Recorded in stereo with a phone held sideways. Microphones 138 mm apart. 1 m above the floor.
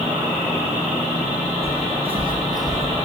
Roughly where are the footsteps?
Right.